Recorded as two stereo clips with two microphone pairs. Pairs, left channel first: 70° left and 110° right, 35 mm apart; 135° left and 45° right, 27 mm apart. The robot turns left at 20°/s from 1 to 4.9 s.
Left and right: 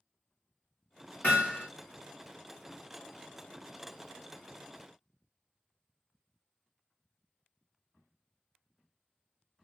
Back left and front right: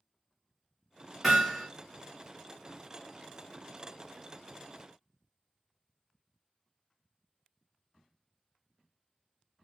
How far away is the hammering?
About 2 m.